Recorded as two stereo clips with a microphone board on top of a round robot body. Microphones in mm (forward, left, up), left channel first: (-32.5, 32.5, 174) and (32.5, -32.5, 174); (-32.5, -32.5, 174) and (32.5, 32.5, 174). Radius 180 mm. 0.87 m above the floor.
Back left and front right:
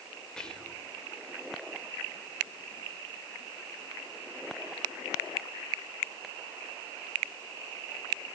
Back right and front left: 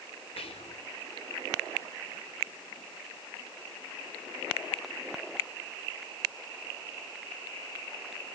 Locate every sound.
0.4 s whispering: 140° right, 3 m